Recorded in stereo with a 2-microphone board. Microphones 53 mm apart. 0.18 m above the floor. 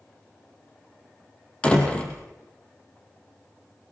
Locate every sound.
1.6 s a door slam: 20° left (ahead or behind), 4 m